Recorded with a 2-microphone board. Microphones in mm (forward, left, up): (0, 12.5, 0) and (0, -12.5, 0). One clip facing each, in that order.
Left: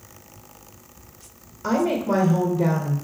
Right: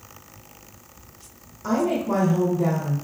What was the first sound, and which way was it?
A woman speaking, 30° left (ahead or behind).